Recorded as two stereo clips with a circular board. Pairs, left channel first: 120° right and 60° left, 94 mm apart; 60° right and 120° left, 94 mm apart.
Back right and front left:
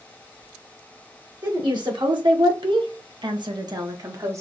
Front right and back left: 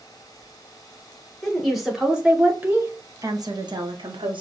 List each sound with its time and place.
1.4 s a woman speaking: 25° left, 1.6 m; by 4.4 s 115° left, 1.3 m